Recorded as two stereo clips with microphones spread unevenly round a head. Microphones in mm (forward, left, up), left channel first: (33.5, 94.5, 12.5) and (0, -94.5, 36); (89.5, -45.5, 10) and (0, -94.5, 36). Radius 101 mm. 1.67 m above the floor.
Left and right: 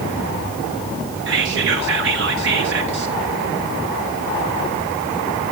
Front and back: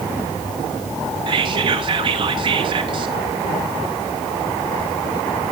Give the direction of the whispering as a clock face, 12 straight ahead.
4 o'clock.